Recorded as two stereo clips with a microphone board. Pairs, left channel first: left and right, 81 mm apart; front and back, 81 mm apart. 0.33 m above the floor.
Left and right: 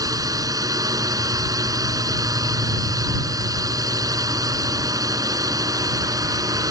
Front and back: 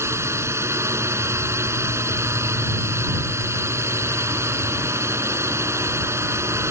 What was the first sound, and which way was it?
A drone, 130° right.